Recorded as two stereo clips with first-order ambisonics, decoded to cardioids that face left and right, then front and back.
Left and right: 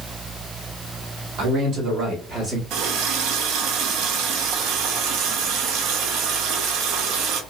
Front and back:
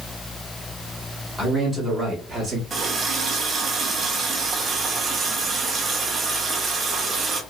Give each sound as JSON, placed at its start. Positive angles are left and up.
{"t": 1.4, "sound": "a man speaking", "azimuth_deg": -75, "distance_m": 1.7}
{"t": 2.7, "sound": "a running tap", "azimuth_deg": -115, "distance_m": 0.6}